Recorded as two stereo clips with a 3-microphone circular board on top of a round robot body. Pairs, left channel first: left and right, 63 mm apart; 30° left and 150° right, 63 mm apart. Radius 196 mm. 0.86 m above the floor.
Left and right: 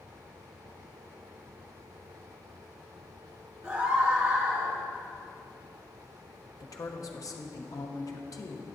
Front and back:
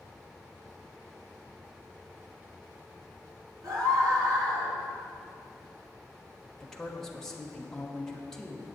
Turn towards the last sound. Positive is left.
turn(degrees=110)